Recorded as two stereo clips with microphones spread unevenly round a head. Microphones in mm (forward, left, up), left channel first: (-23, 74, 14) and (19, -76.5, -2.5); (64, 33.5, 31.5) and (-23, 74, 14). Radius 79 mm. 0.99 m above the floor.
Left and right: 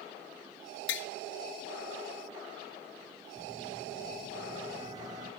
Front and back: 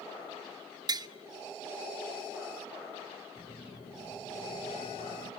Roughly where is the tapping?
Behind left.